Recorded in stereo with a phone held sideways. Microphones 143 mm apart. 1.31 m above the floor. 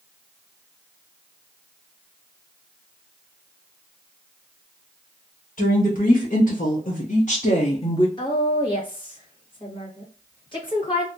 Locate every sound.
5.6 s a woman speaking: 75° left (ahead or behind), 1.7 m; by 8.1 s 30° left (ahead or behind), 0.6 m
8.2 s a woman speaking: 35° left (ahead or behind), 1.6 m